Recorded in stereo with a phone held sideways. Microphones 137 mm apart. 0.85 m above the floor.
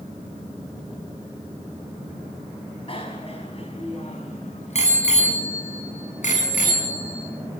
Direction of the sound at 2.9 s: 45° left (ahead or behind).